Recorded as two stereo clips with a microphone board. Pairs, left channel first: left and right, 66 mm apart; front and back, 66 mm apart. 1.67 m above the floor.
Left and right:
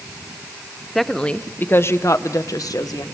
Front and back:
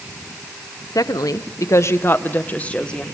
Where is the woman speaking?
Straight ahead, 1.0 m; by 3.0 s 75° left, 1.6 m.